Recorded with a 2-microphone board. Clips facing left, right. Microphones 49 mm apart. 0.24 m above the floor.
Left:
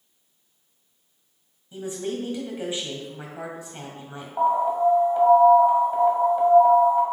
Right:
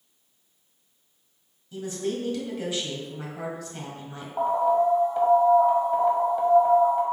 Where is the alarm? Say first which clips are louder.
Left 1 dB; 5° left (ahead or behind), 1.5 m.